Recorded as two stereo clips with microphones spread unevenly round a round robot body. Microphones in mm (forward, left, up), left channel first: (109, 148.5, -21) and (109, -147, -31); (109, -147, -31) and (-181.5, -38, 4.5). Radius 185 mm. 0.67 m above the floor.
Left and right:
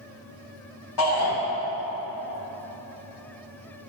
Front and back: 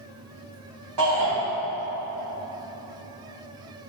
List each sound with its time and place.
1.0 s a shout: 115° left, 1.3 m